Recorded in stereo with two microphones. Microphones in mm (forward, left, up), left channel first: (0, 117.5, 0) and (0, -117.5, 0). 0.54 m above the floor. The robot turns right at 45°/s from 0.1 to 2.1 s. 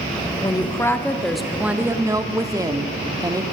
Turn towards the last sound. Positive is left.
turn(degrees=-15)  # may be behind; listen again after turning